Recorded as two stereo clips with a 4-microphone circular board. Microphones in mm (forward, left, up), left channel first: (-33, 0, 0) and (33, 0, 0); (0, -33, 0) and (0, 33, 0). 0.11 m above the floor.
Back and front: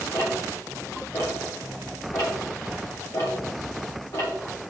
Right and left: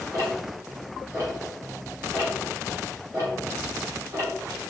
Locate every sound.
0.1 s ticking: 140° left, 4 m